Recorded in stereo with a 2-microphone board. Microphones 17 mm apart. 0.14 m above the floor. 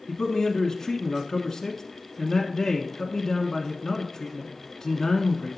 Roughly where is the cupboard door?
I don't hear a cupboard door.